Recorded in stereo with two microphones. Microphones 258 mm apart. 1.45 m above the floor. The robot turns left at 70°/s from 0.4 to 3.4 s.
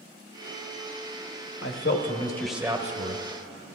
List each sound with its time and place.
1.6 s a man speaking: 60° left, 1.1 m; by 3.2 s 55° right, 1.1 m